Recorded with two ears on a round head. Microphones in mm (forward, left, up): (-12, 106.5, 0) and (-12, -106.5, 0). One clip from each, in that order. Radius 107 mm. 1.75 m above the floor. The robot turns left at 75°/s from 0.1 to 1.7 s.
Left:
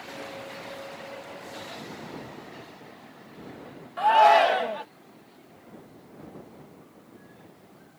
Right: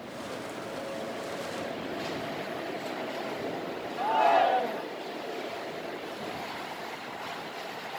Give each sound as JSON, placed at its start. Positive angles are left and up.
{"t": 4.0, "sound": "a shout", "side_deg": 65}